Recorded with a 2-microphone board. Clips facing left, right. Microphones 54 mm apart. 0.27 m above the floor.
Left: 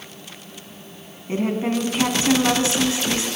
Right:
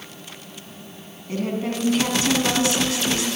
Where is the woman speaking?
25° left (ahead or behind), 2 m.